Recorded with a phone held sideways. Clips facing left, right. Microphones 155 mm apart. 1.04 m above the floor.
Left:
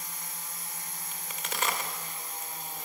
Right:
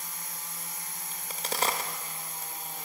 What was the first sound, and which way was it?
A crack, 35° right (ahead or behind).